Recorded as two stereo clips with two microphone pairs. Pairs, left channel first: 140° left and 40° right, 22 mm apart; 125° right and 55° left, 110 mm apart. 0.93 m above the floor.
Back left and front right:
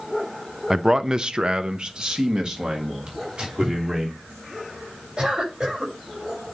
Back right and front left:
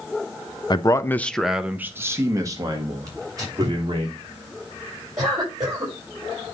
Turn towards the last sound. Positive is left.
turn(degrees=5)